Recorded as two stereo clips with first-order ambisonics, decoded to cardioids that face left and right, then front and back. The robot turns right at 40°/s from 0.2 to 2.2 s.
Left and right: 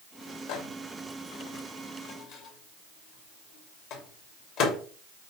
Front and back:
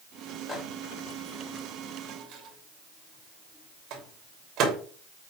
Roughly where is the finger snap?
I don't hear a finger snap.